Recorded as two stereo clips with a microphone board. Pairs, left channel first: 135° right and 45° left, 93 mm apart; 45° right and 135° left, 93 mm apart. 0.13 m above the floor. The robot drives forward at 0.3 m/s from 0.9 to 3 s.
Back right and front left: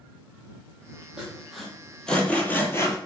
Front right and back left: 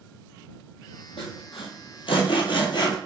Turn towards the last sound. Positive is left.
turn(degrees=-85)